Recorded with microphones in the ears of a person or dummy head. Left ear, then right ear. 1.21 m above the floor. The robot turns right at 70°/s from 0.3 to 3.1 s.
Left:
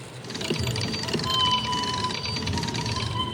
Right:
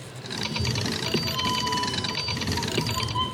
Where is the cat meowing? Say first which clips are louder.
Even; 20° right, 2 m; by 3.2 s 170° left, 2 m.